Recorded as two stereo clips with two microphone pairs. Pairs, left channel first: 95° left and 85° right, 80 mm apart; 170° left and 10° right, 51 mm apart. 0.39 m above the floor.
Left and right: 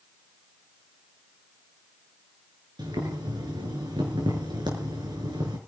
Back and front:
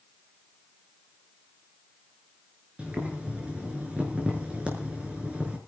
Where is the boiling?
80° right, 5.5 m.